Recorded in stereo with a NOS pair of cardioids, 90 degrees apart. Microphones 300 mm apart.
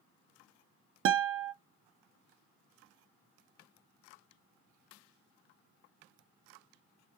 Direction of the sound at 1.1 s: 45° right.